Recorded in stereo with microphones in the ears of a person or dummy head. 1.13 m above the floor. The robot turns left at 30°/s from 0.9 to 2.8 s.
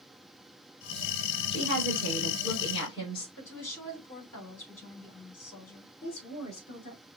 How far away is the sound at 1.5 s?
About 4 m.